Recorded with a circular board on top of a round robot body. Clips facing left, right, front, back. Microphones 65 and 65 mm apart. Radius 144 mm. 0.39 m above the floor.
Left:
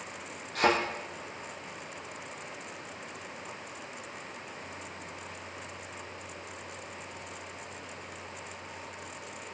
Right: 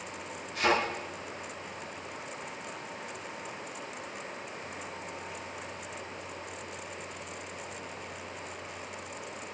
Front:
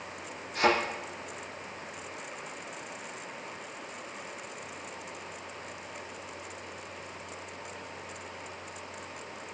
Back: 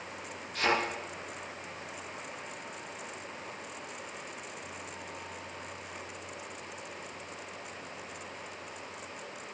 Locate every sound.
0.6 s a thud: 65° left, 7.5 m